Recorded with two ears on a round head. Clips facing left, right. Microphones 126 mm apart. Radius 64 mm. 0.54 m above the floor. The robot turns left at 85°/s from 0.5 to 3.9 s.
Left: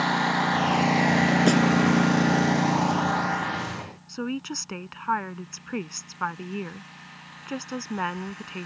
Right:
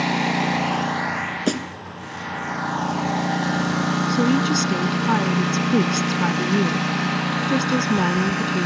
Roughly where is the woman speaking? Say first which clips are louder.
Right 10 dB; right.